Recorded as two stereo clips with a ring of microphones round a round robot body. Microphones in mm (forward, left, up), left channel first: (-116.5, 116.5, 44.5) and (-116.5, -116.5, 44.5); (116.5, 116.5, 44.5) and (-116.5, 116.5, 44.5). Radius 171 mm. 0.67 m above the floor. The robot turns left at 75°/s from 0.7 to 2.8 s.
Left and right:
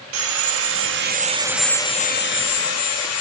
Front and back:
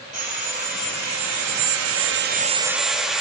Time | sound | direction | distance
0.1 | sawing | 110° right | 0.7 m